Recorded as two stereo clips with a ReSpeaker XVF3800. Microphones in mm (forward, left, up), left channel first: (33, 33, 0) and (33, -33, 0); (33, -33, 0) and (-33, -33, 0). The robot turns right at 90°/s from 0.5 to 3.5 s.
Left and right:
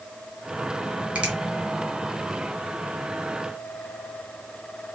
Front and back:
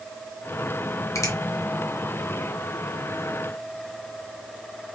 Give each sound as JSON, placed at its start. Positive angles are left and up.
{"t": 1.1, "sound": "a finger snap", "azimuth_deg": -20, "distance_m": 2.5}